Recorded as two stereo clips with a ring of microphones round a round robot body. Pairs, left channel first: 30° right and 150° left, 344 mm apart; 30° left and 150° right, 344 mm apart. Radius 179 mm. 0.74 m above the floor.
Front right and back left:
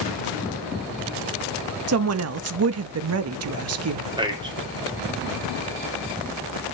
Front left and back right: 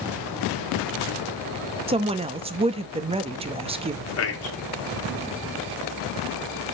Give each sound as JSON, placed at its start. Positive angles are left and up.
{"t": 1.9, "sound": "a woman speaking", "azimuth_deg": 145, "distance_m": 0.9}
{"t": 4.2, "sound": "a man speaking", "azimuth_deg": 75, "distance_m": 2.5}